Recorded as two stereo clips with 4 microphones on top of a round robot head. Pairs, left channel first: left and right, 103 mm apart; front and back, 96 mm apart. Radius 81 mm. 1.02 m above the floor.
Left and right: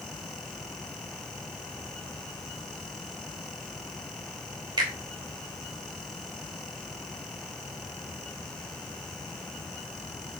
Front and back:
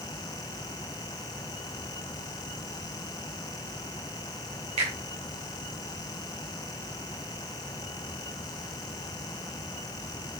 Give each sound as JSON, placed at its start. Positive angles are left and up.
{"t": 4.8, "sound": "a finger snap", "azimuth_deg": -140, "distance_m": 3.0}